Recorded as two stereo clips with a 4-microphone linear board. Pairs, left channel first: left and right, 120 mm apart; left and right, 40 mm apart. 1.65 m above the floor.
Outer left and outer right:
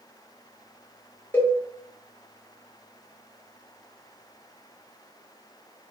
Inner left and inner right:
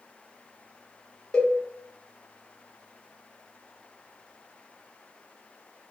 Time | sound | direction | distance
1.3 | a cowbell | 15° left (ahead or behind) | 1.4 m